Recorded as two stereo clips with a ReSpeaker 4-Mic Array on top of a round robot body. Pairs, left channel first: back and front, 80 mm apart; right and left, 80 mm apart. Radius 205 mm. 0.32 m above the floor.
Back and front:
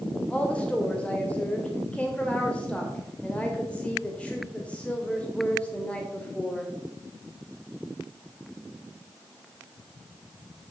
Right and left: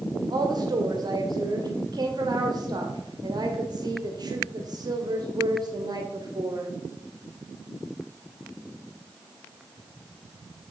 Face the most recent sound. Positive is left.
turn(degrees=105)